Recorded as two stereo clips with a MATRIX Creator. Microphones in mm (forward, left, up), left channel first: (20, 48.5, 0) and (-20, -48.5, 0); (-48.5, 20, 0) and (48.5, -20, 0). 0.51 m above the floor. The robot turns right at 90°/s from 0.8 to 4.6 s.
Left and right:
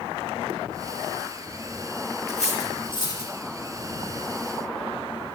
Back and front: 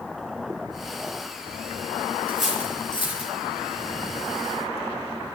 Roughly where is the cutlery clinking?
Ahead left.